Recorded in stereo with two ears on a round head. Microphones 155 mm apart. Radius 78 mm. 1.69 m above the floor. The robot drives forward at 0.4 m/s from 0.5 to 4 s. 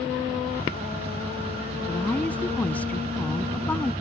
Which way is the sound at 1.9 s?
10° left (ahead or behind).